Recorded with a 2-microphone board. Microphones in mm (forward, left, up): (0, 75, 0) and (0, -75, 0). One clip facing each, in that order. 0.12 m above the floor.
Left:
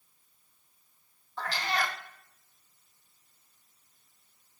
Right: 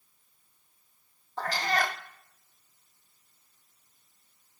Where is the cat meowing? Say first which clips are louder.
Right 3 dB; 45° right (ahead or behind), 1.0 m.